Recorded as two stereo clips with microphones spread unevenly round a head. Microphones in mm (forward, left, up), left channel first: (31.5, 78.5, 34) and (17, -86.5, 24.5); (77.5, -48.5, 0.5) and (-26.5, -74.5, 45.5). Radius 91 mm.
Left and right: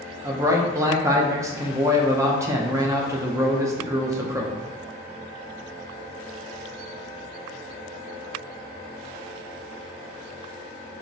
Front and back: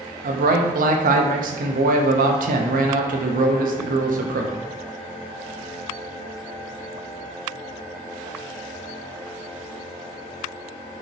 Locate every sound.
0.2 s a man speaking: 170° right, 0.6 m